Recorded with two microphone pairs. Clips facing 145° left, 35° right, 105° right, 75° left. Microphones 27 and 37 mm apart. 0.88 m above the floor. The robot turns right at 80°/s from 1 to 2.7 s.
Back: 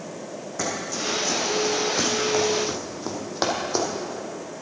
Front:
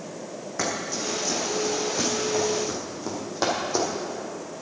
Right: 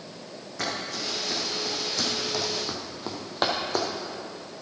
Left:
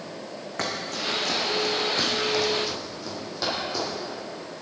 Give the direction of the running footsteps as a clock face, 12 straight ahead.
11 o'clock.